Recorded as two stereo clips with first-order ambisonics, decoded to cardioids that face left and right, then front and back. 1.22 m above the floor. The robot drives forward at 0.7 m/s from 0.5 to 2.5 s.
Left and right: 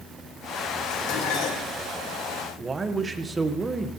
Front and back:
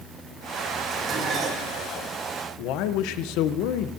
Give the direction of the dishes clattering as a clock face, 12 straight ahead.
9 o'clock.